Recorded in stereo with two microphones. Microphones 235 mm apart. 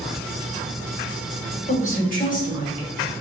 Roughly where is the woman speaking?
Left.